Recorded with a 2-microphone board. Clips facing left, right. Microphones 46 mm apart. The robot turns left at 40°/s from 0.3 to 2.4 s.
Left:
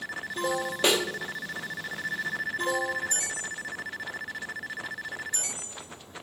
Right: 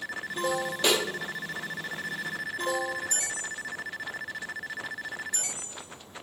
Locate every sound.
0.8 s a snare drum: 20° left (ahead or behind), 0.6 m; by 1.0 s 15° left (ahead or behind), 0.6 m